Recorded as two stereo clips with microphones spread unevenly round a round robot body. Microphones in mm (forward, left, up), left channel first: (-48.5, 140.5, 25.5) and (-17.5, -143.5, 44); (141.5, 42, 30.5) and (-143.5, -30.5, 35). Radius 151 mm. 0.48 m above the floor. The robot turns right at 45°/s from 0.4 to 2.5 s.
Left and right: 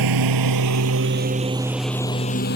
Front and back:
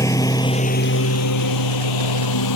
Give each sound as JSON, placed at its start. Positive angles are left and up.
{"t": 0.0, "sound": "a lawn mower", "azimuth_deg": -65}